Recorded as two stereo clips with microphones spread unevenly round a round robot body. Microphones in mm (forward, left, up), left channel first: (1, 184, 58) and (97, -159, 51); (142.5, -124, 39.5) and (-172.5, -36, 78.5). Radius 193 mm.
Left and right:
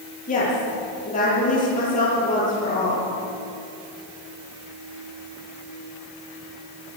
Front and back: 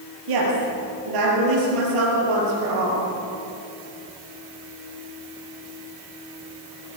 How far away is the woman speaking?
About 9.5 m.